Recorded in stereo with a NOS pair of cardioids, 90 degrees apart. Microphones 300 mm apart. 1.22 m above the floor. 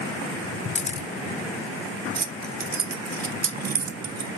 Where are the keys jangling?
35° right, 0.6 m.